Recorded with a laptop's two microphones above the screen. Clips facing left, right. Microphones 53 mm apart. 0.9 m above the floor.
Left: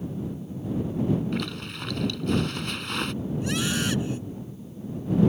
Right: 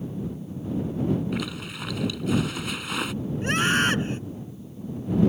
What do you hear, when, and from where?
1.3 s a zipper: 5° right (ahead or behind)
3.4 s a scream: 40° right (ahead or behind)